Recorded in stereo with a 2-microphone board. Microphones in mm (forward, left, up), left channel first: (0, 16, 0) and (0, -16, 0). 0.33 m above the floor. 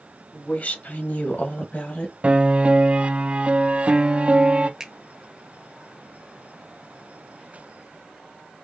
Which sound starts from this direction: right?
A piano, at 2.2 s.